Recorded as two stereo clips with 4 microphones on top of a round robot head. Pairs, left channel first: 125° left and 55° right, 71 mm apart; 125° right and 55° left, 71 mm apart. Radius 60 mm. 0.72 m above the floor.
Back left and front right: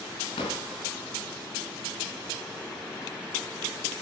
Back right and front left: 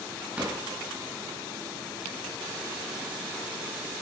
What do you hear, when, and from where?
0.4 s a drawer: 125° left, 4 m